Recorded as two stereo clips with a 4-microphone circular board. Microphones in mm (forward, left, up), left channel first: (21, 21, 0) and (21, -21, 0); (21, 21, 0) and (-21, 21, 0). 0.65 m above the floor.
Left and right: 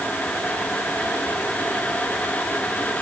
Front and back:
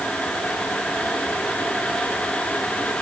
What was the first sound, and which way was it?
Only background noise.